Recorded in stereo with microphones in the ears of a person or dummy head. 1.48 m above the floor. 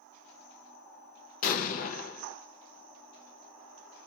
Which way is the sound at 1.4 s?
45° left (ahead or behind).